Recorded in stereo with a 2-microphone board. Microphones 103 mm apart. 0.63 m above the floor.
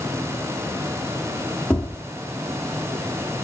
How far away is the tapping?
About 1.2 m.